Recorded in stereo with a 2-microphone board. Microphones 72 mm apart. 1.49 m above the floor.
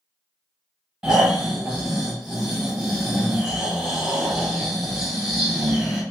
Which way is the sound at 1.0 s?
5° right (ahead or behind).